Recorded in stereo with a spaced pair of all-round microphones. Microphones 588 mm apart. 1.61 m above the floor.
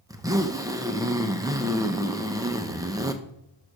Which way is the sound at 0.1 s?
5° right (ahead or behind).